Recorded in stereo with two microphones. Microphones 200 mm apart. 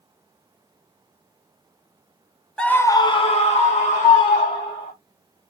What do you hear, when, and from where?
2.6 s a scream: 5° left (ahead or behind), 0.5 m; by 4.9 s 35° left (ahead or behind), 1.4 m